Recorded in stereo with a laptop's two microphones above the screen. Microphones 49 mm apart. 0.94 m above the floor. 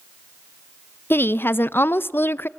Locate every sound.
1.1 s a woman speaking: 45° left (ahead or behind), 0.5 m